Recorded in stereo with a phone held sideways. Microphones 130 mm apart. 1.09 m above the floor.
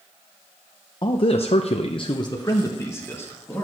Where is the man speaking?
40° left (ahead or behind), 0.6 m; by 3.6 s 15° left (ahead or behind), 1.6 m.